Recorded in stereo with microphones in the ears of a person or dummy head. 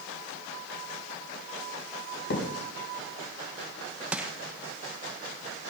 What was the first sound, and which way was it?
A thud, 70° left (ahead or behind).